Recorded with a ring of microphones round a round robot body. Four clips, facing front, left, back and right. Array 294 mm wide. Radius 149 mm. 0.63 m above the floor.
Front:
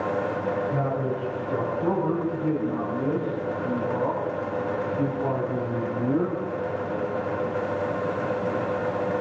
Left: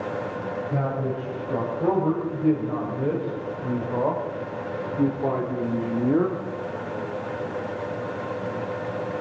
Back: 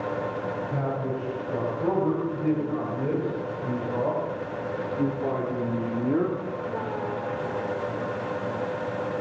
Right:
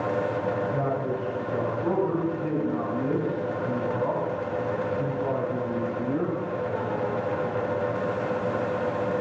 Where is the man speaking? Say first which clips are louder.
Even, front 2 dB; 100° left, 5 m; by 6.4 s 105° left, 2.0 m.